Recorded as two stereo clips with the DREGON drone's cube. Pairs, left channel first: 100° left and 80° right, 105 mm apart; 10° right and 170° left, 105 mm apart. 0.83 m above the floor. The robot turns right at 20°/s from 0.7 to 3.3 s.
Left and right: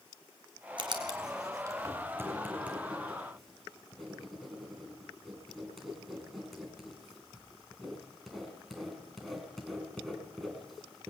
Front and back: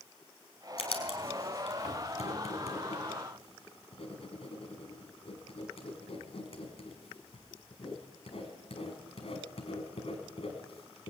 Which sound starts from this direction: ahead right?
Writing, at 0.8 s.